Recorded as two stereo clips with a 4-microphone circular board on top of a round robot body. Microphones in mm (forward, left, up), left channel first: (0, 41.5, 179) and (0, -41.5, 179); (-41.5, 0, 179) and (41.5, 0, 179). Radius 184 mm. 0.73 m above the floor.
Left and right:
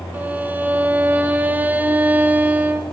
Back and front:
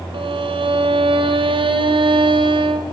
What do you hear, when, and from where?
0.1 s a violin: 20° right, 1.6 m